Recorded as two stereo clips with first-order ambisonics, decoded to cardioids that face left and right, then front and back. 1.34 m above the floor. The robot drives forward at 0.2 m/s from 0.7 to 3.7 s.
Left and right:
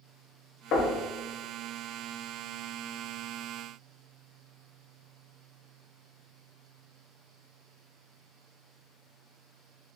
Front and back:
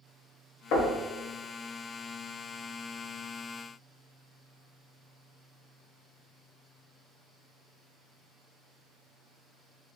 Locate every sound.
0.7 s knocking: 40° left, 0.6 m; by 0.9 s 45° left, 0.6 m